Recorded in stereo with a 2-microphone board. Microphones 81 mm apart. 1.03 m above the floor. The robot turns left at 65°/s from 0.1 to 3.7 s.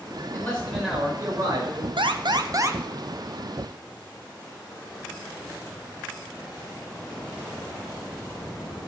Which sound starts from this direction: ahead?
A man speaking, at 0.3 s.